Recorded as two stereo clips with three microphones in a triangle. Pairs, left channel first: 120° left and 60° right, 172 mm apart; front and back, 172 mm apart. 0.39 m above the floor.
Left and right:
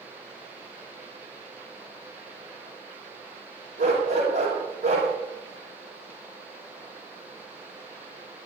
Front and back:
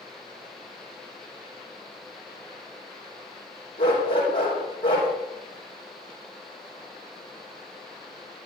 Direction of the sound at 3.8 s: 60° right.